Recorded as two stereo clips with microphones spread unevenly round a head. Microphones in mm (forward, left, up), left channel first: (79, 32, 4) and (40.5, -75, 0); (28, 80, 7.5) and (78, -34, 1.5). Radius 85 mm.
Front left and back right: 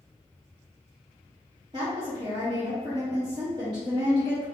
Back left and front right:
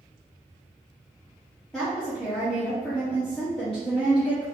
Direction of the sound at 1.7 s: 160° right.